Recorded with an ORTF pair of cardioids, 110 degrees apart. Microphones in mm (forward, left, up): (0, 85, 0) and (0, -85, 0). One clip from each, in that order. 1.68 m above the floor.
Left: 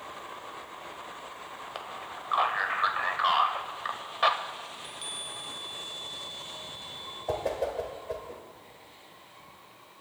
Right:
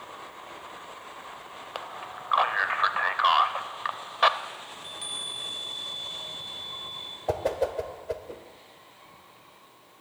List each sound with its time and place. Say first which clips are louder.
1.8 s a man speaking: right 4 dB; 25° right, 0.9 m
4.7 s a chime: right 3 dB; 10° right, 0.8 m
7.3 s a whoosh: right 3 dB; 30° right, 1.2 m